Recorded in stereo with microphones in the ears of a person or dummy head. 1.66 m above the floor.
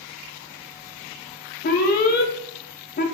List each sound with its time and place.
1.6 s an alarm: 50° left (ahead or behind), 0.5 m